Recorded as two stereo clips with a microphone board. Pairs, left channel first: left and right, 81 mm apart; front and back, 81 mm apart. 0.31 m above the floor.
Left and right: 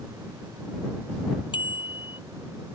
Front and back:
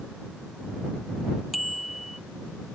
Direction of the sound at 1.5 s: 90° left.